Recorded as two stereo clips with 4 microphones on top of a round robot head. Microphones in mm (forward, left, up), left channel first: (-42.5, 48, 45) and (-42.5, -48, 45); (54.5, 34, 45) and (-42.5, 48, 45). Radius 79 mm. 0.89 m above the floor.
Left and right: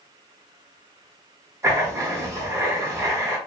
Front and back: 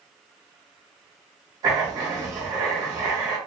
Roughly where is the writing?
Behind right.